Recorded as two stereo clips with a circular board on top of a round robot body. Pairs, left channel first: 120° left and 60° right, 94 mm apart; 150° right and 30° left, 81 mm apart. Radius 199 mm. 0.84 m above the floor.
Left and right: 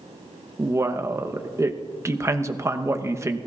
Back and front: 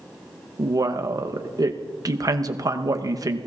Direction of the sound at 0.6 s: 5° right.